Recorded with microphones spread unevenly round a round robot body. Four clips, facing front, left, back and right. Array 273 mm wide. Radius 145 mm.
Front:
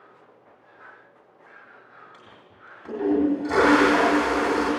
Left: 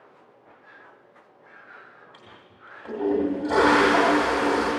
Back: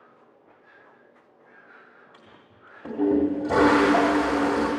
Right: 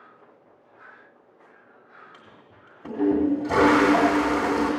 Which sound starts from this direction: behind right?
A toilet flushing, at 2.1 s.